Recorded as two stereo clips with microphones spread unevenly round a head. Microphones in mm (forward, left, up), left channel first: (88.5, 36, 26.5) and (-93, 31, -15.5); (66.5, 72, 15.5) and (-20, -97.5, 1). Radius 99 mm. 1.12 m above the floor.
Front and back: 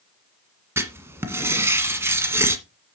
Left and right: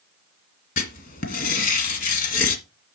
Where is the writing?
100° left, 1.6 m.